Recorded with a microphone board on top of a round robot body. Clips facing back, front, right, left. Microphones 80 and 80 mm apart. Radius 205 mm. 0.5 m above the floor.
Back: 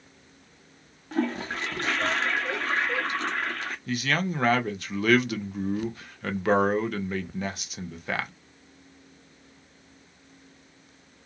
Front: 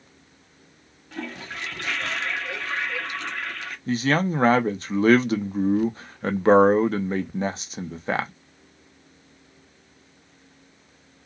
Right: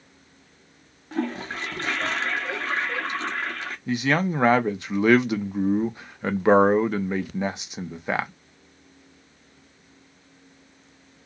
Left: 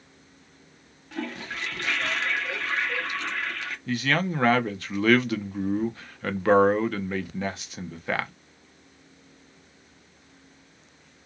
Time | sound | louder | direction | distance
1.1 | a toilet flushing | back 7 dB, right 5 dB | 140° right | 1.1 m
3.9 | a man speaking | front 6 dB, right 3 dB | 30° right | 0.8 m